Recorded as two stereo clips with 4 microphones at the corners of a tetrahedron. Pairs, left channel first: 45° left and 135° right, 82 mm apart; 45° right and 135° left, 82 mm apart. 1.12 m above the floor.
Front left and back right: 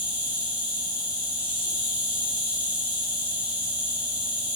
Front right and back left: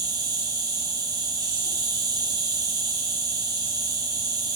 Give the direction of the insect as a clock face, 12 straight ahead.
7 o'clock.